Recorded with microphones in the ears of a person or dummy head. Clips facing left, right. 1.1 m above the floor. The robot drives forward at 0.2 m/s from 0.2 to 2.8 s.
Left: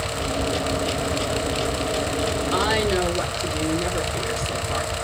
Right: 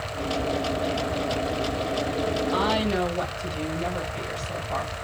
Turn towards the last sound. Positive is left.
turn(degrees=80)